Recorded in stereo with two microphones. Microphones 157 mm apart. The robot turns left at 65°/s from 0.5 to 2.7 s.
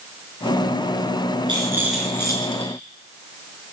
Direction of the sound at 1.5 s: 150° right.